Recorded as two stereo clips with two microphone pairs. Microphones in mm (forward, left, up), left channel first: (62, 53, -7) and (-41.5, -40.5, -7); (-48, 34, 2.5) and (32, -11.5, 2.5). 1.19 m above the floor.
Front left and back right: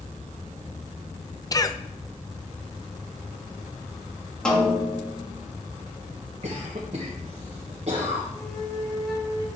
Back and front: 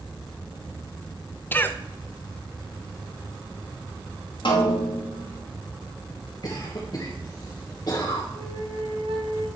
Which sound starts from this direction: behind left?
A snare drum, at 4.5 s.